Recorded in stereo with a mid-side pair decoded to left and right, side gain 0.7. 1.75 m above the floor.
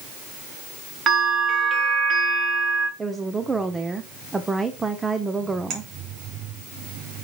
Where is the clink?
50° right, 3 m.